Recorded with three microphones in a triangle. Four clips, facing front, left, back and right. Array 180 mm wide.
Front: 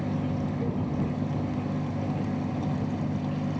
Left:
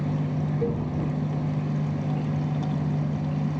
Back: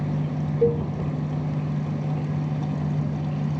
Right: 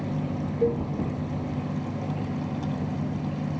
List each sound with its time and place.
0.6 s a cowbell: 160° right